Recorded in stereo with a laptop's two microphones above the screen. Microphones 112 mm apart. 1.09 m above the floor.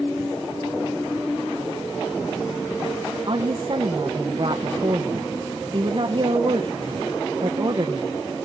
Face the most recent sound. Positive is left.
turn(degrees=-50)  # may be behind; listen again after turning